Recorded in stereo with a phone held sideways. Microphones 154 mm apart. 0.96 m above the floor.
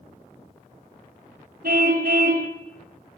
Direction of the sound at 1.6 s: 75° right (ahead or behind).